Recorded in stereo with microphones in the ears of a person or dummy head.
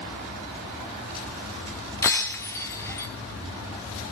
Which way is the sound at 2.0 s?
15° left (ahead or behind).